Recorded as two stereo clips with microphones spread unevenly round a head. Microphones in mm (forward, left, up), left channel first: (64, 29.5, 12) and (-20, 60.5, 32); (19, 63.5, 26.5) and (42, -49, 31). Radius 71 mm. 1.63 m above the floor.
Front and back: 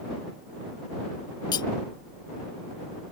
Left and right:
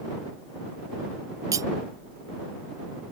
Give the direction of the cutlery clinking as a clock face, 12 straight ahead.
2 o'clock.